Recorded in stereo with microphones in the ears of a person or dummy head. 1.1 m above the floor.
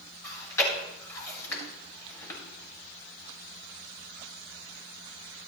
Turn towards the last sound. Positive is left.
turn(degrees=15)  # may be behind; listen again after turning